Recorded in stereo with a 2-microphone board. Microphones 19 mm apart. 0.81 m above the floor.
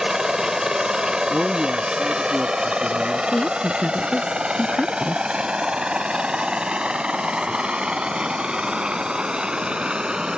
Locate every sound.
0.0 s a helicopter: 35° right (ahead or behind); by 10.4 s 65° right (ahead or behind)
1.3 s a man speaking: 45° right (ahead or behind)
3.3 s a woman speaking: 75° left (ahead or behind)